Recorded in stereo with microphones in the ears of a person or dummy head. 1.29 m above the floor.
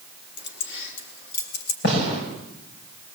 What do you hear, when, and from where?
0.4 s keys jangling: 65° left (ahead or behind), 2.5 m; by 1.7 s 80° left, 2.5 m
1.8 s a gunshot: 60° left (ahead or behind), 5.5 m